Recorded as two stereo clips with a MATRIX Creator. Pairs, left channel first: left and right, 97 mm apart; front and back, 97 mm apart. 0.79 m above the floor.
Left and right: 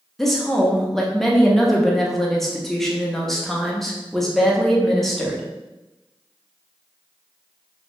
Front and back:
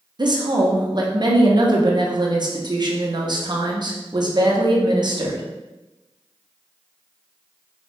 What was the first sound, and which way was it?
A woman speaking, 175° left.